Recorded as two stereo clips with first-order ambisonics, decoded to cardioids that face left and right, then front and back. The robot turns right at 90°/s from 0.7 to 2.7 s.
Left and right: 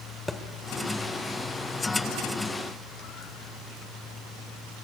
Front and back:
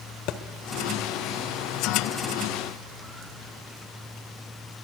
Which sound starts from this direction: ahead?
A thud, at 0.3 s.